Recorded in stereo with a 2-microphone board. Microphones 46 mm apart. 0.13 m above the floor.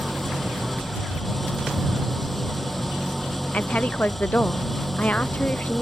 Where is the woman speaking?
35° left (ahead or behind).